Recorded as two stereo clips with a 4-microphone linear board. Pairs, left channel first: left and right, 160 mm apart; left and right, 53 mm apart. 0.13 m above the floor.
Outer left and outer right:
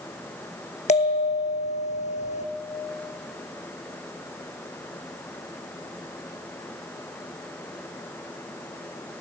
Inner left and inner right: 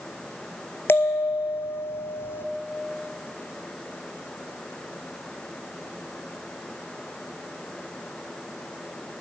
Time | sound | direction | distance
0.9 | a bell | 45° left (ahead or behind) | 1.1 m